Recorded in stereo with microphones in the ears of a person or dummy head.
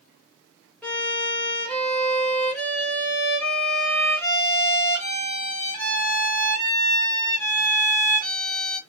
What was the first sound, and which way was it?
A violin, 10° left (ahead or behind).